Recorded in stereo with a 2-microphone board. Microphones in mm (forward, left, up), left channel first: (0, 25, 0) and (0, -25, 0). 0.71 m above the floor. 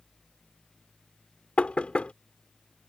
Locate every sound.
1.6 s knocking: 25° left (ahead or behind)